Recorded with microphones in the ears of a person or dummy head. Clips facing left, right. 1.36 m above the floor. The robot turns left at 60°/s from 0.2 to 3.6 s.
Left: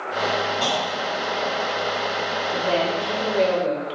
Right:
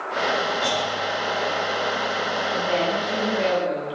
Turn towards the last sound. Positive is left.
turn(degrees=65)